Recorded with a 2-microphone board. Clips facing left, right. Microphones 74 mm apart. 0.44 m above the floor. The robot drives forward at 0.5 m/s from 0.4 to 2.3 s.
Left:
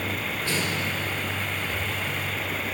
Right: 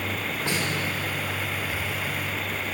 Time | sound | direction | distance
0.5 | a snare drum | 20° right (ahead or behind) | 1.7 m